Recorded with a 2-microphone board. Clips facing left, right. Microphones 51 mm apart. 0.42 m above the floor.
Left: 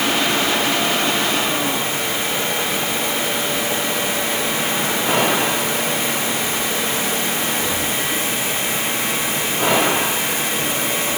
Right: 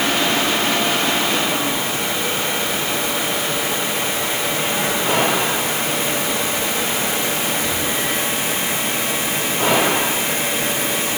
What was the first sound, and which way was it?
Only background noise.